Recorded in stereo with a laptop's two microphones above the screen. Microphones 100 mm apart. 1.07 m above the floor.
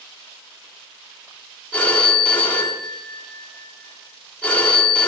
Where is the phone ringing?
15° left (ahead or behind), 1.4 m.